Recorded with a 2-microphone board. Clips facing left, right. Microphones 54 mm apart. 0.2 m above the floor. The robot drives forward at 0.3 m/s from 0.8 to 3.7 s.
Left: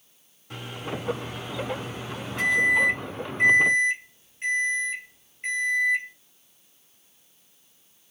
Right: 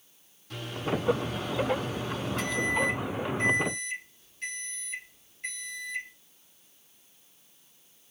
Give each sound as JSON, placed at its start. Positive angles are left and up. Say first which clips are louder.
{"t": 0.5, "sound": "a microwave", "louder": "right 2 dB", "side_deg": 20, "distance_m": 1.5}